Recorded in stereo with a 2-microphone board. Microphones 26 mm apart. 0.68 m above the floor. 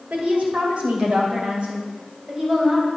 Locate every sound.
0.1 s a woman speaking: 65° right (ahead or behind), 2.5 m; by 2.9 s 40° right (ahead or behind), 3.5 m